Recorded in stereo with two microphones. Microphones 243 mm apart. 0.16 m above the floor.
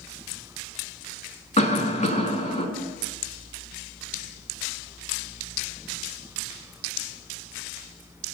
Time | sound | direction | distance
1.6 | a cough | 30° left (ahead or behind) | 1.2 m